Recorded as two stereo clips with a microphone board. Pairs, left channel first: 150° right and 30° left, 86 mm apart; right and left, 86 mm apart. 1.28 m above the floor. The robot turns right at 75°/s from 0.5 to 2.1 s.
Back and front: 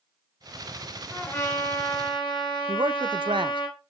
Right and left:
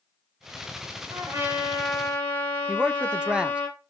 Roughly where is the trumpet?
Behind left.